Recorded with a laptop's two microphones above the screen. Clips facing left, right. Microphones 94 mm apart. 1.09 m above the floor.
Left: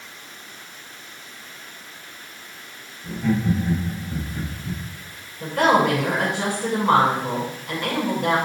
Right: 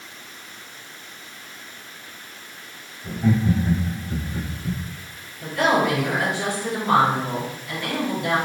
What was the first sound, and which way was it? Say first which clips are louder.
Laughter: right 1 dB; 25° right (ahead or behind).